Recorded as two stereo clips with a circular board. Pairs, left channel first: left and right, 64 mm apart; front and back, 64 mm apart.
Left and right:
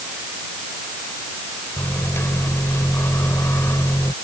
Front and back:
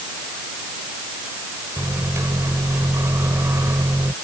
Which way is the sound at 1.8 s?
135° left.